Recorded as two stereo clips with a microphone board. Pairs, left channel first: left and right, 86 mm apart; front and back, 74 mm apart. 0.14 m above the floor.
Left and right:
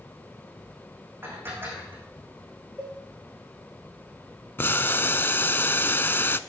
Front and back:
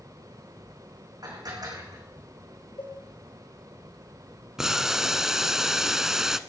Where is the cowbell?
15° right, 7 m.